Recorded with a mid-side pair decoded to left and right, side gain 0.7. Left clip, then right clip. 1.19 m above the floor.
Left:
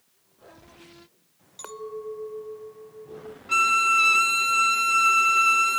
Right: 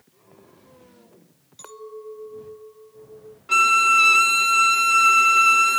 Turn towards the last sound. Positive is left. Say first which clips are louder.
# right 4 dB
turn(degrees=-15)